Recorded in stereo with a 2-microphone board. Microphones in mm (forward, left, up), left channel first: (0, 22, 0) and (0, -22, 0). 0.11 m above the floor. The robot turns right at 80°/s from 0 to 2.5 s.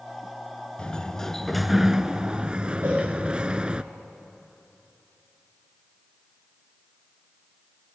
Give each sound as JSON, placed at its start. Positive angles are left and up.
{"t": 0.8, "sound": "a sliding door", "side_deg": 20, "distance_m": 0.6}
{"t": 2.8, "sound": "a cowbell", "side_deg": -60, "distance_m": 9.0}